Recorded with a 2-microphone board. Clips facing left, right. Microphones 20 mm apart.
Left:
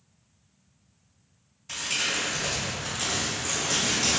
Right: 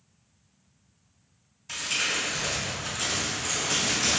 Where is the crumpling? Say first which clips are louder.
Even; 5° left (ahead or behind), 1.5 m.